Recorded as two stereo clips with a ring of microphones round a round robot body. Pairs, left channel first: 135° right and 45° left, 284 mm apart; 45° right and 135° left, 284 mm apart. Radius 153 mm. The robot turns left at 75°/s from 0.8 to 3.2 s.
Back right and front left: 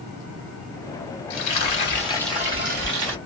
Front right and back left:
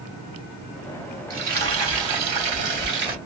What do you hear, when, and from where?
1.3 s frying: 150° right, 3 m; by 3.2 s 70° left, 3 m